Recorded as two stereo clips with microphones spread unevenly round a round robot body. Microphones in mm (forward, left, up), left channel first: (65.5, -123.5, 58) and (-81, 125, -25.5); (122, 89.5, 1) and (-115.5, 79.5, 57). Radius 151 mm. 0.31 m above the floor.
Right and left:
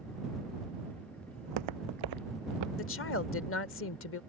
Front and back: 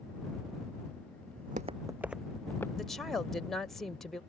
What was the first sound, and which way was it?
Footsteps, 140° left.